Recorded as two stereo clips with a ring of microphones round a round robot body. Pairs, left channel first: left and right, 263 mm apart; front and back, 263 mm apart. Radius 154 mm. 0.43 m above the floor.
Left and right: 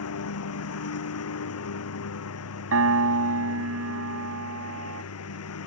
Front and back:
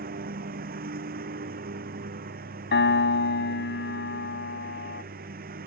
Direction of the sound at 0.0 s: 120° left.